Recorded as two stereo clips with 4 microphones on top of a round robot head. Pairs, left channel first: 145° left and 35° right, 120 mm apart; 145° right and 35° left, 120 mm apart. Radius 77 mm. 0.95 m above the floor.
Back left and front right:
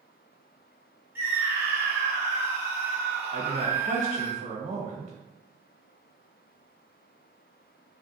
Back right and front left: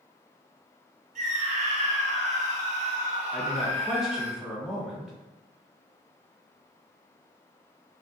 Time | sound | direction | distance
1.1 | a scream | 35° left | 1.6 m
3.3 | a man speaking | 50° right | 1.2 m